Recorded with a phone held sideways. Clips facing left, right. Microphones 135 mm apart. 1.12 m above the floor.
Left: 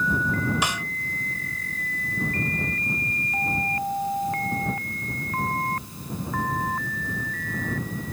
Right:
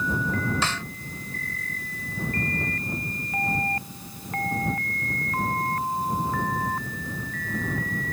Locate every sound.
0.6 s a snare drum: 15° left (ahead or behind)